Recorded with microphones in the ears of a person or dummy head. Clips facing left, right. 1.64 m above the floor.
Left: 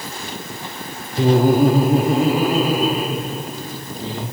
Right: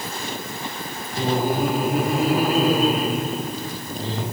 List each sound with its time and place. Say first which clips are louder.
1.2 s laughter: left 8 dB; 65° left (ahead or behind), 0.7 m; by 4.2 s centre (ahead or behind), 3 m